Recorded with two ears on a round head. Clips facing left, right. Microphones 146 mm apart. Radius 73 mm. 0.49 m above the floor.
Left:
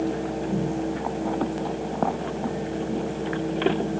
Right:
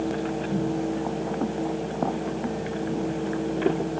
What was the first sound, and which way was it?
Only background noise.